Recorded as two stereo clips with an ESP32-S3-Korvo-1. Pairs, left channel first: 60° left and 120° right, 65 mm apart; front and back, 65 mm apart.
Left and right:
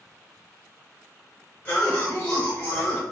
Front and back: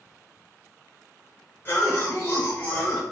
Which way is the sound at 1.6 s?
25° left.